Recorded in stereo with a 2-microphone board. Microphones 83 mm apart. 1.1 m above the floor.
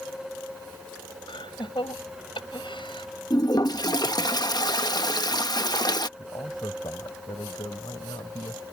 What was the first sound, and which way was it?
Laughter, 80° left.